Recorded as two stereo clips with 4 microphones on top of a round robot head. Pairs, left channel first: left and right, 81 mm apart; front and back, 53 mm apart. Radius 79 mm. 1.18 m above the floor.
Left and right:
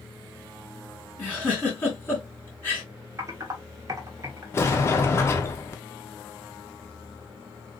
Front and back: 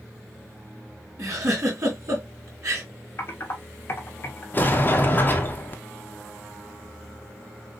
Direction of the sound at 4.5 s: 40° left.